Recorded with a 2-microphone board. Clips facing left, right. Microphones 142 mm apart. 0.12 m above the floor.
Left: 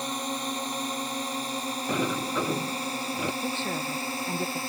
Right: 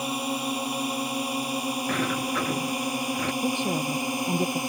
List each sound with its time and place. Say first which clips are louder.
0.0 s a drone: right 3 dB; 10° right (ahead or behind); by 4.7 s 15° right (ahead or behind)
1.9 s a sliding door: left 2 dB; 20° left (ahead or behind)
3.4 s a woman speaking: right 5 dB; 15° right (ahead or behind)